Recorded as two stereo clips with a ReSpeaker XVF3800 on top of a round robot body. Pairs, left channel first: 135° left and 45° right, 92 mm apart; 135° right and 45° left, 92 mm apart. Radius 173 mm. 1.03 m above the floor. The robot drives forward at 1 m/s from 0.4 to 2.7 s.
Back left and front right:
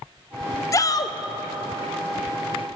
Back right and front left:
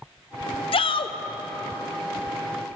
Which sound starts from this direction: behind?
A shout, at 0.7 s.